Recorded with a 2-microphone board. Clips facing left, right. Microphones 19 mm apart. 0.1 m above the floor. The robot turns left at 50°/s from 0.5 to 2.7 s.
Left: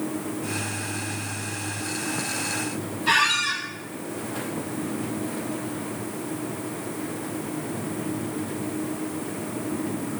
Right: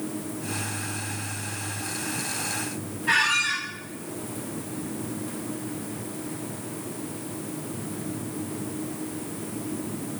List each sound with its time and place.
3.1 s a squeak: 65° left (ahead or behind), 1.1 m